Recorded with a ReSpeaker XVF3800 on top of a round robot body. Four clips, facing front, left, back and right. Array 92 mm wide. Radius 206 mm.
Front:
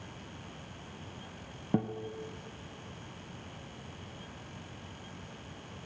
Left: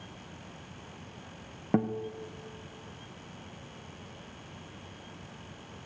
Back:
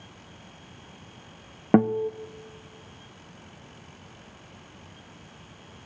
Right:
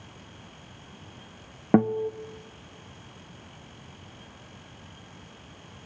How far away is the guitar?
About 0.8 m.